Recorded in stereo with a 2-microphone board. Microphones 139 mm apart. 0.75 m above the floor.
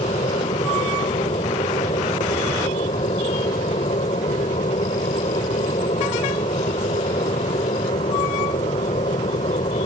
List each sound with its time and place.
0.0 s an aircraft: 55° left (ahead or behind)